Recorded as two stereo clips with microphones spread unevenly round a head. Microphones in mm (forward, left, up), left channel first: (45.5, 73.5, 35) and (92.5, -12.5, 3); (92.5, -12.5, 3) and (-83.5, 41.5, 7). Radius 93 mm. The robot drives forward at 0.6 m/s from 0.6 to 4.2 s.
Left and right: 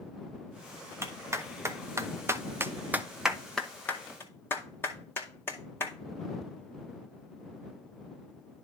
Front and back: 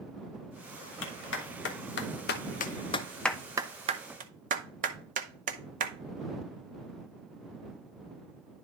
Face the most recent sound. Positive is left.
turn(degrees=-160)